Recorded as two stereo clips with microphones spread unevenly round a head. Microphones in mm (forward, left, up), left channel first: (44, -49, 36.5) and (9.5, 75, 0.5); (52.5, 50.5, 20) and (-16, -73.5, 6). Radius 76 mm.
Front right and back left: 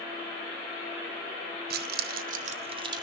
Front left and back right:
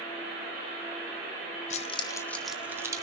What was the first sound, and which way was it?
Keys jangling, 110° left.